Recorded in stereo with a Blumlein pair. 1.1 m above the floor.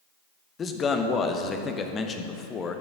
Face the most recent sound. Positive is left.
turn(degrees=20)